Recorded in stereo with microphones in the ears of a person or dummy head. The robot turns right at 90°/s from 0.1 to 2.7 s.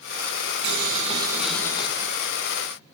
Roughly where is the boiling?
Right.